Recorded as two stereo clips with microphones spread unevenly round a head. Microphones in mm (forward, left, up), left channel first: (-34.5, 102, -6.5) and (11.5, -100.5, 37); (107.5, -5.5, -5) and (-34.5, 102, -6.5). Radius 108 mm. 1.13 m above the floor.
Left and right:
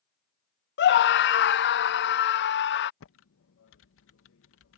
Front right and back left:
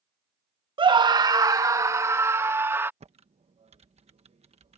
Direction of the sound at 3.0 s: 85° left.